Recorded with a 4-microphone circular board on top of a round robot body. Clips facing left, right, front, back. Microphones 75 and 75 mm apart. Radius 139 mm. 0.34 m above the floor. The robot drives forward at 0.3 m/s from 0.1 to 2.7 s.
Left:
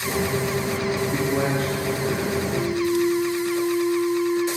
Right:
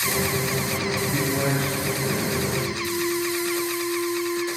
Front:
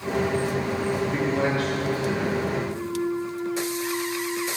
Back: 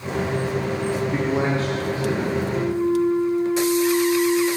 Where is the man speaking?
130° left, 1.7 m; by 2.4 s 140° left, 1.9 m.